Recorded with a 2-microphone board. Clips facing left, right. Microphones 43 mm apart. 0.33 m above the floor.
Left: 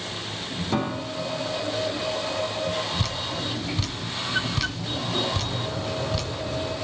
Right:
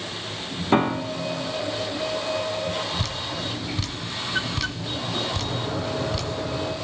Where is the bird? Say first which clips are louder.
Right 2 dB; 90° right, 3 m.